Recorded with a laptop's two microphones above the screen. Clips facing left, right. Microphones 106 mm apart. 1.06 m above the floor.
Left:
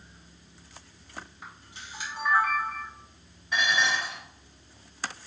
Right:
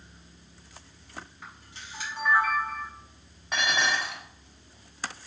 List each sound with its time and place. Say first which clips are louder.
1.4 s a camera shutter: even; 15° left (ahead or behind), 1.3 m
3.5 s dishes clattering: left 1 dB; 70° right (ahead or behind), 1.0 m